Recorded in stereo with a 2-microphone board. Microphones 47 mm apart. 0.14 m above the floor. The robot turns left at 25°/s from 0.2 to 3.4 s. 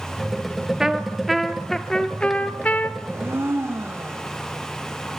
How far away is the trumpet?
About 1.2 m.